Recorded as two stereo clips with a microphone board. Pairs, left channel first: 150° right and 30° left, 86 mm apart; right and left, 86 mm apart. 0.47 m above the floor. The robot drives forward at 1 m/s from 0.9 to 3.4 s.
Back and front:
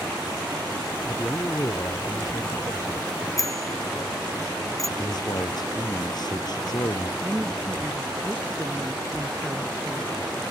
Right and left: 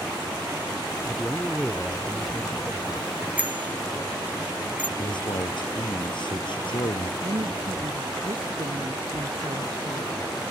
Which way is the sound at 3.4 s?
160° left.